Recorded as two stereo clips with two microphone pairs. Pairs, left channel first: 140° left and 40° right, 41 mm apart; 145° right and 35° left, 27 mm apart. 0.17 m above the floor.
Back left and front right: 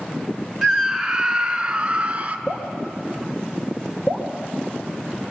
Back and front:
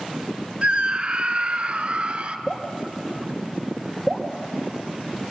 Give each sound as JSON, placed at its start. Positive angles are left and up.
{"t": 0.6, "sound": "a scream", "azimuth_deg": 50, "distance_m": 1.7}
{"t": 2.5, "sound": "dripping", "azimuth_deg": 105, "distance_m": 2.5}